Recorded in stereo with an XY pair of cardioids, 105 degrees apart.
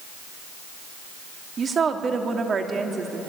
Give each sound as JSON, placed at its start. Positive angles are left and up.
{"t": 1.6, "sound": "a woman speaking", "azimuth_deg": -40, "distance_m": 3.0}